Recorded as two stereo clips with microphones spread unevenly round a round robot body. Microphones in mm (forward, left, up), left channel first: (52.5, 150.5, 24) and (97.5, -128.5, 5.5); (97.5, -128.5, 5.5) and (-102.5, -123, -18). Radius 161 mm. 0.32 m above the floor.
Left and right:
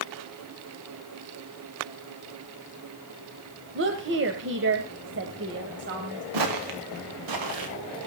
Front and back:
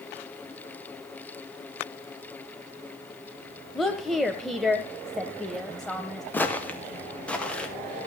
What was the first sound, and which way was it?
A woman speaking, 95° right.